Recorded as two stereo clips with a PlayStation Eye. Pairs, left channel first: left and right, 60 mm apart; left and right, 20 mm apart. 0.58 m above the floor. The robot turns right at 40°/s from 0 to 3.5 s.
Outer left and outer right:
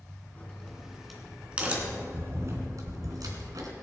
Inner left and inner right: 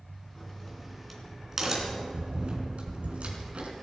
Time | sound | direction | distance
0.3 | a crack | 30° left (ahead or behind) | 2.5 m